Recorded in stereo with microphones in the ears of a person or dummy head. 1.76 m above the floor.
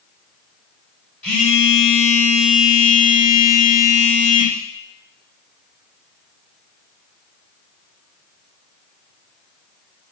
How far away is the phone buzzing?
About 2.5 m.